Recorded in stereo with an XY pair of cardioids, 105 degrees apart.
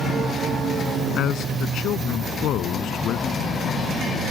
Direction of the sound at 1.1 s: 70° left.